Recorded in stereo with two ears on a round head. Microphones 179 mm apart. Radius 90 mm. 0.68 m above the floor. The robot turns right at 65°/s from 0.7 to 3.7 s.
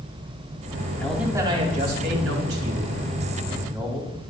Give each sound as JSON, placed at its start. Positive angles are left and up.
{"t": 1.0, "sound": "a man speaking", "azimuth_deg": 175, "distance_m": 4.5}